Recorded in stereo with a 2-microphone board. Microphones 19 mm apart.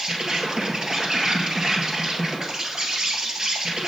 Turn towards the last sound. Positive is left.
turn(degrees=-25)  # may be behind; listen again after turning